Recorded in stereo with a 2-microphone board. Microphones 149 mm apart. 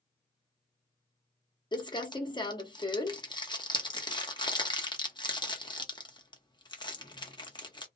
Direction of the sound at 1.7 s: 30° left (ahead or behind).